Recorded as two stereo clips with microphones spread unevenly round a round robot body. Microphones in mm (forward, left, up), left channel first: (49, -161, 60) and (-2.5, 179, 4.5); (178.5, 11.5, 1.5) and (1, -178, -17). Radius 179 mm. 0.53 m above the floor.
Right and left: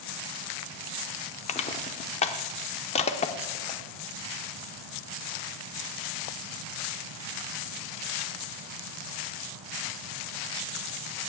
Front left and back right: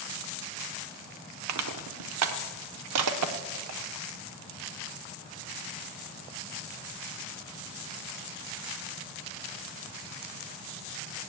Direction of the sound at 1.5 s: 155° right.